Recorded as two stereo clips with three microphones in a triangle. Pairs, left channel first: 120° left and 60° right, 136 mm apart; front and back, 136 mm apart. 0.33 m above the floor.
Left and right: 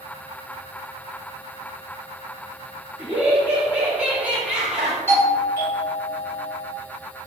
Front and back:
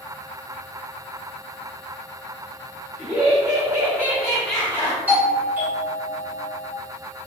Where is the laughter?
135° right, 1.7 m; by 5.0 s 25° left, 1.1 m.